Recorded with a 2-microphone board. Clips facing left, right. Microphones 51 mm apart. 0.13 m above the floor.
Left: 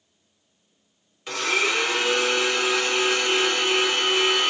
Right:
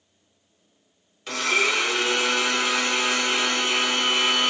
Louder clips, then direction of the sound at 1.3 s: Right 1 dB; 5° left (ahead or behind).